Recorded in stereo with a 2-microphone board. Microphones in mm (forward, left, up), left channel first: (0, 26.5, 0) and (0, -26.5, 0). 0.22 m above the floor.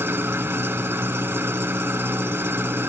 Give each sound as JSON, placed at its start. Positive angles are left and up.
{"t": 0.0, "sound": "an engine running", "side_deg": -45, "distance_m": 0.9}